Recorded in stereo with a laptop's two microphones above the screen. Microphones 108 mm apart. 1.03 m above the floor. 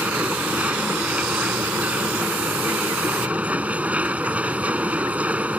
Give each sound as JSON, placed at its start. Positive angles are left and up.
{"t": 0.0, "sound": "a machine running", "side_deg": -15}